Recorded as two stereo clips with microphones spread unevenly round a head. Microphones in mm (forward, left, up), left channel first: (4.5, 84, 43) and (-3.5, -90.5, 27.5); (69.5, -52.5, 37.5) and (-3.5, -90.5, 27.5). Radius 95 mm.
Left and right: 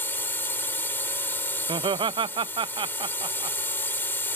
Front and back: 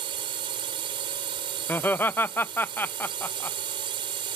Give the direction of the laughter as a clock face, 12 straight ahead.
1 o'clock.